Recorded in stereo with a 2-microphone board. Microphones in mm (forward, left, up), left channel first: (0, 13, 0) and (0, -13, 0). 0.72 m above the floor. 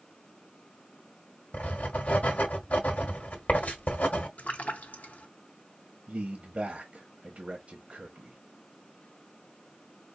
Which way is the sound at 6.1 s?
45° right (ahead or behind).